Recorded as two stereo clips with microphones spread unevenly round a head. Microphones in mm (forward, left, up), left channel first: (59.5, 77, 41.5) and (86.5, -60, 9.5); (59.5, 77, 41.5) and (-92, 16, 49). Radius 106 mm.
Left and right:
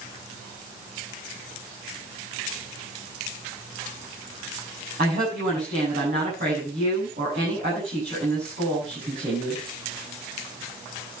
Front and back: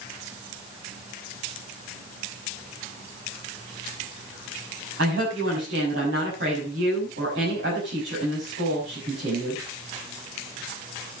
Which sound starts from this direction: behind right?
A woman speaking, at 5.0 s.